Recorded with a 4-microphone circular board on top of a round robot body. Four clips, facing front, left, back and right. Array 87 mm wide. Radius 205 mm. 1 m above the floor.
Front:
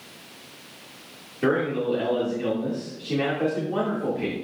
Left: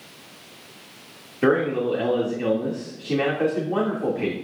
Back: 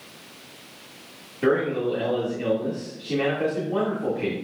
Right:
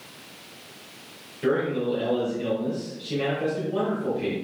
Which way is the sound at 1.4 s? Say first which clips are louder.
Left 4 dB, back 1 dB; 90° left.